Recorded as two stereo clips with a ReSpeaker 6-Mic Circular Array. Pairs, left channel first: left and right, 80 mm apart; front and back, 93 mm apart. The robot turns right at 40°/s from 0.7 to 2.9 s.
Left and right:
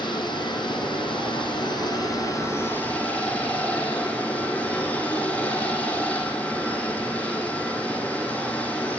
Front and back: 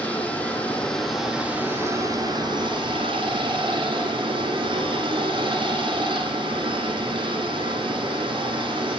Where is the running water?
70° left, 8 m; by 9.0 s 160° left, 8 m.